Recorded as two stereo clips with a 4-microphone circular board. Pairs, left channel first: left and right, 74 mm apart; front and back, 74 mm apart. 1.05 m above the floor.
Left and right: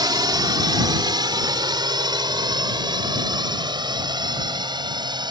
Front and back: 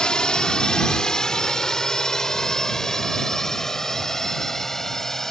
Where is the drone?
80° right; by 5.3 s 85° right.